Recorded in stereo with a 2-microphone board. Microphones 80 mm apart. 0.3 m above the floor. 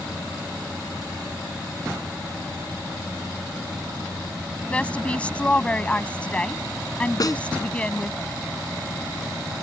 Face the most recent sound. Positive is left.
turn(degrees=50)  # may be behind; listen again after turning